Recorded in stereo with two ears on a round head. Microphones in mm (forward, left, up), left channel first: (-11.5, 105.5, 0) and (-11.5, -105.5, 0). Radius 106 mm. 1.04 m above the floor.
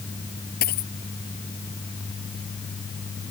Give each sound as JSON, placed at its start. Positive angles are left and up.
{"t": 0.6, "sound": "a dropped coin", "side_deg": 45}